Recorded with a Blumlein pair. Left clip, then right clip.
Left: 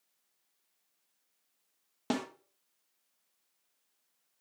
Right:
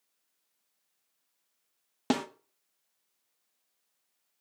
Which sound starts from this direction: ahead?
A snare drum, at 2.1 s.